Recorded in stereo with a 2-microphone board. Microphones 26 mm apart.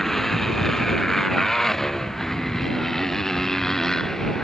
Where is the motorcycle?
10° left (ahead or behind); by 4.4 s 15° left (ahead or behind).